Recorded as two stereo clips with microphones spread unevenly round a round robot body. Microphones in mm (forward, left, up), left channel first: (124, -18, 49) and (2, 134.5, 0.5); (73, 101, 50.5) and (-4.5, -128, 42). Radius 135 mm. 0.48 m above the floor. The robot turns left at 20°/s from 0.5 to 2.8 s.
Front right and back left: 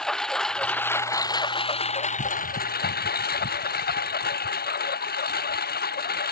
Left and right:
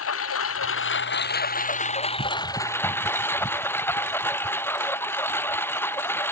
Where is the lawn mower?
35° left; by 6.3 s 10° right.